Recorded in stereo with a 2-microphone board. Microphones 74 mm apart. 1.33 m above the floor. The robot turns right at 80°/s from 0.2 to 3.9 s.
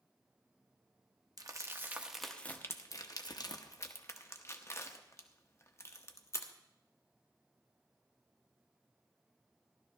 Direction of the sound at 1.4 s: 55° right (ahead or behind).